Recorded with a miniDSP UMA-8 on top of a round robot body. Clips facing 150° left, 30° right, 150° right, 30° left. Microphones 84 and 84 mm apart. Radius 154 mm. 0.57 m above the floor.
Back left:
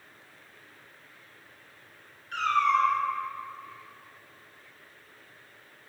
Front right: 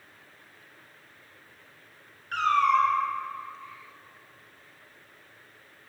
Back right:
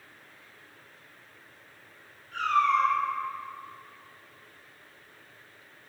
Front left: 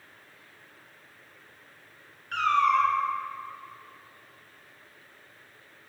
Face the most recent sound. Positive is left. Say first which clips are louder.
# front right 2 dB, front left 1 dB
turn(degrees=10)